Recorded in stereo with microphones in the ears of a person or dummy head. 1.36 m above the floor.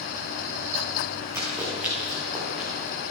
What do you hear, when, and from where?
1.3 s running footsteps: 10° right (ahead or behind), 6 m; by 2.7 s 5° right (ahead or behind), 6.5 m